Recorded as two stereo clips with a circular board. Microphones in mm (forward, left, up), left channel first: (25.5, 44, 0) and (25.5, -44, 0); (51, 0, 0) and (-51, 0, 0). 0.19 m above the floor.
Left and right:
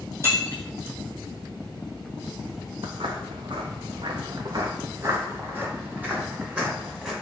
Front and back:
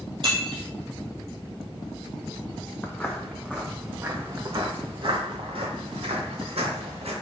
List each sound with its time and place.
0.2 s breaking glass: 145° right, 2 m
2.8 s footsteps: 75° right, 1.1 m; by 7.1 s 170° right, 2 m